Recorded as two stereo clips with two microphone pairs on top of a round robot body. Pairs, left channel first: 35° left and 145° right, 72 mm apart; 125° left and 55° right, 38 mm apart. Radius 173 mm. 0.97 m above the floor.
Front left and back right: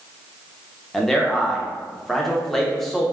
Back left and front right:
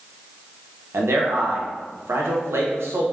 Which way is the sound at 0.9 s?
45° right.